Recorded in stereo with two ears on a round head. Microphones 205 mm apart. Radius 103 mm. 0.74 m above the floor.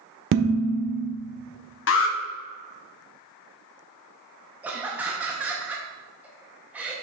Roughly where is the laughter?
Centre.